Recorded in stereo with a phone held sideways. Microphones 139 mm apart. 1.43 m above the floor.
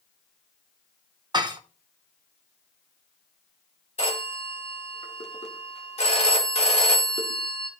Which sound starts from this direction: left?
A phone ringing, at 4.0 s.